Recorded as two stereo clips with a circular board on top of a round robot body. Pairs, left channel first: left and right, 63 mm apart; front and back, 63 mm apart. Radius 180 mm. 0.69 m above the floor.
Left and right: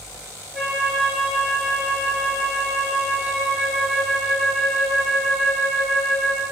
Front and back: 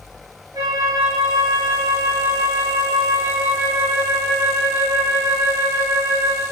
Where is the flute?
170° left, 3 m.